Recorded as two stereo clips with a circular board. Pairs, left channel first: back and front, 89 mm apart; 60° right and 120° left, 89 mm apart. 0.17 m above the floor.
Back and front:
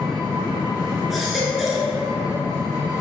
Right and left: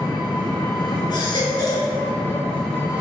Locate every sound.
0.0 s an engine running: 15° left, 1.3 m
1.1 s a baby crying: 85° right, 0.6 m